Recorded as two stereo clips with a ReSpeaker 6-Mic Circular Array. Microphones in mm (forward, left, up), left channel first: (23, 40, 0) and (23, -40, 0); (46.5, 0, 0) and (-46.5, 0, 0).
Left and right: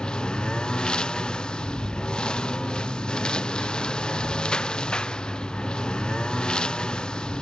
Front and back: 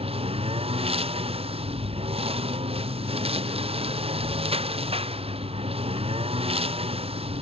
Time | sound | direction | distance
0.0 | a lawn mower | 170° left | ?